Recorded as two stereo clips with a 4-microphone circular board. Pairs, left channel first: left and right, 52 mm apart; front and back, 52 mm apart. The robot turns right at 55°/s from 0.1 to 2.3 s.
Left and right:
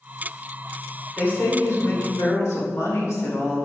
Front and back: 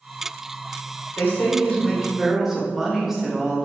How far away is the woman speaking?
About 2 m.